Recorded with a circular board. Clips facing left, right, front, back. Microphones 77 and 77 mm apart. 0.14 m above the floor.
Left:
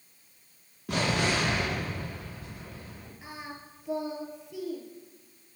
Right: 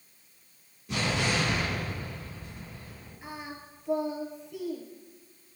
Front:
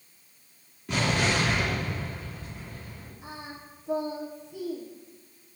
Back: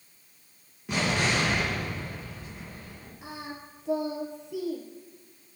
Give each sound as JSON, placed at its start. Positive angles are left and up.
{"t": 0.9, "sound": "an explosion", "azimuth_deg": 95, "distance_m": 4.0}
{"t": 3.2, "sound": "singing", "azimuth_deg": 180, "distance_m": 1.4}